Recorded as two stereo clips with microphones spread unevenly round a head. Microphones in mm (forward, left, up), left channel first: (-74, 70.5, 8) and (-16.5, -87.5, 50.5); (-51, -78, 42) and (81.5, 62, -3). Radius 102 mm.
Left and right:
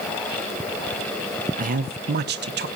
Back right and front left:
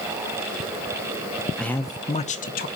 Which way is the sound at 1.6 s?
30° right.